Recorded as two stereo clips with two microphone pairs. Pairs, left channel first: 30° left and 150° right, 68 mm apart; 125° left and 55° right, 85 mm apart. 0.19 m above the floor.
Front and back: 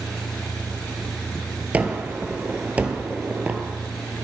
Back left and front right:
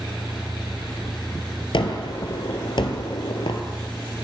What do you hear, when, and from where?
1.7 s a gunshot: 140° left, 1.0 m